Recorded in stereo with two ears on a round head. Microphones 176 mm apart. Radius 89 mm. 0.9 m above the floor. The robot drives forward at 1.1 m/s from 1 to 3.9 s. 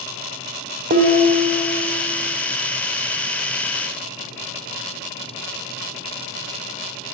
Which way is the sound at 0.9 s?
45° right (ahead or behind).